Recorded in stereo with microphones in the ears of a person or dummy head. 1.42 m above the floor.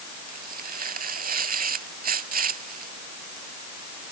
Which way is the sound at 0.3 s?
55° right (ahead or behind).